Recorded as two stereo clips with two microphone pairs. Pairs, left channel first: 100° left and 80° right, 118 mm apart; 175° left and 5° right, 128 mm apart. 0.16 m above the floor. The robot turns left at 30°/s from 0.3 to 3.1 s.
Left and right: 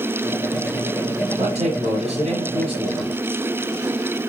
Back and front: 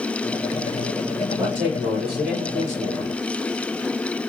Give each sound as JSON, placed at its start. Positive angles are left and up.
{"t": 1.4, "sound": "a man speaking", "azimuth_deg": -75, "distance_m": 3.0}